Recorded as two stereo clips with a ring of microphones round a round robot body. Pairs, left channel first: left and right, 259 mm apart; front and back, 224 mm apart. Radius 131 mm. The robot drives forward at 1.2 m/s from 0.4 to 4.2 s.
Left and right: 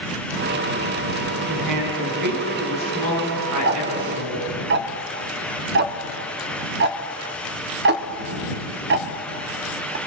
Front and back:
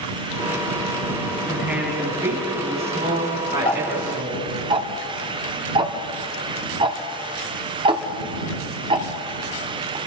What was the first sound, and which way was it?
A woman speaking, 95° right.